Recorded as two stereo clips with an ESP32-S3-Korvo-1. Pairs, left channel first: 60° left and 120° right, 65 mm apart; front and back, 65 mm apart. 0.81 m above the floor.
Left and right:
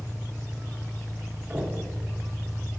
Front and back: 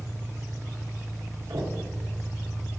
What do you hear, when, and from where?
0.0 s an engine running: 20° right, 2.5 m
1.5 s knocking: 170° left, 1.4 m